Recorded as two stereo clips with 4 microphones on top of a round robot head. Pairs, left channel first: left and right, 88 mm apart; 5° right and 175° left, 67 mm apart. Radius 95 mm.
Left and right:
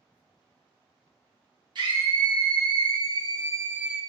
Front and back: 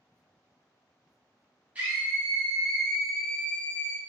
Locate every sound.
1.8 s a scream: 115° right, 2 m; by 4.0 s 10° right, 0.8 m